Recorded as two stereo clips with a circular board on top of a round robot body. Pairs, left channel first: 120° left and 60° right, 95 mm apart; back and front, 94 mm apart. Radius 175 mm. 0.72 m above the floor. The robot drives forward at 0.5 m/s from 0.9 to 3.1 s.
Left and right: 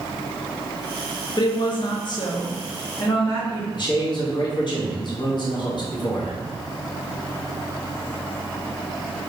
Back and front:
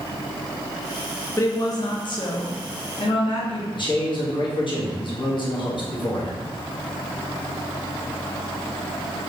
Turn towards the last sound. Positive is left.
turn(degrees=155)